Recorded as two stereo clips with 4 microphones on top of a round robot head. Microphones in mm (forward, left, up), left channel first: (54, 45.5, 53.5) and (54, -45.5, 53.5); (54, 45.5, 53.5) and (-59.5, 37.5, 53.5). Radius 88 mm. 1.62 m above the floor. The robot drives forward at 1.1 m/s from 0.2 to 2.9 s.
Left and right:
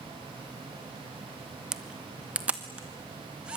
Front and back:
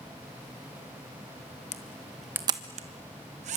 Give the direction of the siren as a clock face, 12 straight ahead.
No siren in this recording.